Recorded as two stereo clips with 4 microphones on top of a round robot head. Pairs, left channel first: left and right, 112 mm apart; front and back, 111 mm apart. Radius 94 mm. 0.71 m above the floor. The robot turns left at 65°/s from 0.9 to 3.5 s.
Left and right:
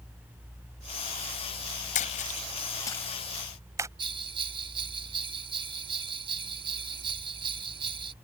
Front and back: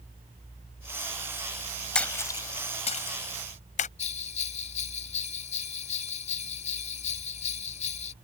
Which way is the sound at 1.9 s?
80° left.